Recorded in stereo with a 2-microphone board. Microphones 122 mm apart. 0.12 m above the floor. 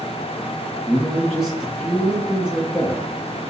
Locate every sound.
0.9 s a man speaking: centre (ahead or behind), 1.1 m